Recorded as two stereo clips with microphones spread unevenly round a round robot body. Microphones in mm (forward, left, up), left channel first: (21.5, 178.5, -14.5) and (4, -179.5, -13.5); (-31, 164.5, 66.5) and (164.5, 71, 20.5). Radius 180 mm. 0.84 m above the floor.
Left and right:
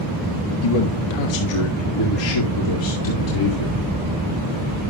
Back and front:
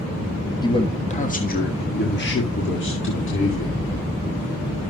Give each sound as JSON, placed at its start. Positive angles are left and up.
{"t": 0.6, "sound": "a man speaking", "azimuth_deg": 75, "distance_m": 1.4}